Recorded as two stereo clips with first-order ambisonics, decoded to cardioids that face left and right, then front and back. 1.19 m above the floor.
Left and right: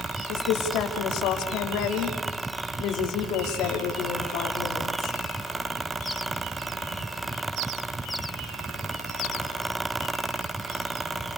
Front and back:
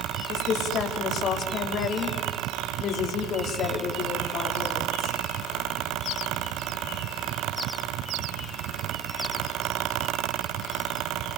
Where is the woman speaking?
55° left, 2.5 m.